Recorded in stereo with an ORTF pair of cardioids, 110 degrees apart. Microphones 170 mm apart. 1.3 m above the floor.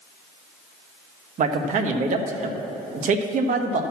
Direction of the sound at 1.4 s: 50° right.